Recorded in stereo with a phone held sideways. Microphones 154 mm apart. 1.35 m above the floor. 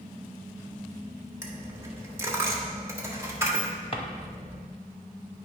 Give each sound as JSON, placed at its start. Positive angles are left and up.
{"t": 1.4, "sound": "a dropped coin", "side_deg": -20, "distance_m": 1.2}
{"t": 3.9, "sound": "a drawer", "side_deg": 35, "distance_m": 1.0}